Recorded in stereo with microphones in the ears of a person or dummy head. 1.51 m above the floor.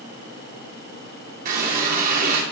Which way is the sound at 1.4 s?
50° right (ahead or behind).